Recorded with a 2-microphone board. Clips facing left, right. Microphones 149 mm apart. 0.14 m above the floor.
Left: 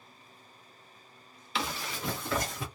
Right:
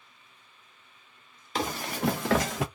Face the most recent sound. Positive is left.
turn(degrees=-65)  # may be behind; listen again after turning